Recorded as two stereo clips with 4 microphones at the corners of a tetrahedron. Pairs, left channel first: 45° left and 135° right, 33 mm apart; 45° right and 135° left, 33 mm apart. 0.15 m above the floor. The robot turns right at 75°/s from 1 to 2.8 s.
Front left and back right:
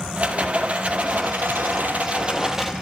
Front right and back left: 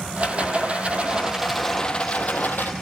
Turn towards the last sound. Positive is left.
turn(degrees=-45)